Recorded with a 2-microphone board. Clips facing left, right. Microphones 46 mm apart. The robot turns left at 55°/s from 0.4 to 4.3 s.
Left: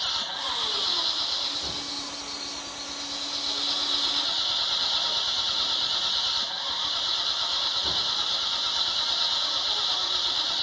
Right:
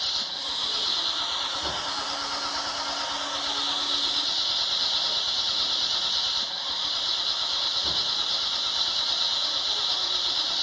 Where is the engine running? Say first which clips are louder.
Left 2 dB; 30° left; by 10.6 s 175° left.